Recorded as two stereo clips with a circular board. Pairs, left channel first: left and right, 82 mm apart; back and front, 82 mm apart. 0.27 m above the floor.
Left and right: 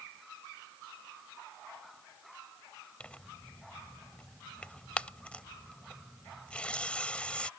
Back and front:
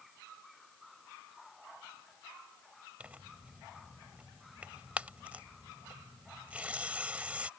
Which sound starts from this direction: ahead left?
Tearing paper, at 3.0 s.